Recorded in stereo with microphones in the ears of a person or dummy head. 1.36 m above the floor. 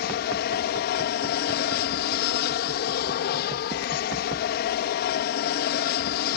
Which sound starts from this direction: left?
An aircraft, at 0.0 s.